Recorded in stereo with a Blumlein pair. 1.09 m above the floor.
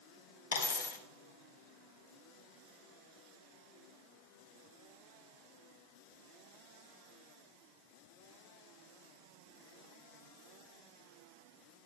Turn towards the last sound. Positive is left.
turn(degrees=65)